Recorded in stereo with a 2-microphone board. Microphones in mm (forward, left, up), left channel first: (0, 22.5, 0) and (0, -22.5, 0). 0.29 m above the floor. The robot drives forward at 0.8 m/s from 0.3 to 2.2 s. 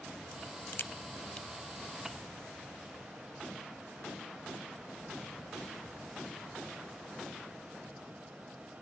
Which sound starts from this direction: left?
A crack, at 0.3 s.